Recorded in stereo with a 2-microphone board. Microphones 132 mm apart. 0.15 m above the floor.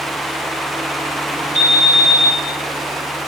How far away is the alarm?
About 6.5 m.